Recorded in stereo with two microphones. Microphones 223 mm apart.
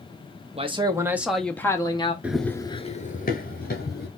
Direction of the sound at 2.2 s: 5° right (ahead or behind).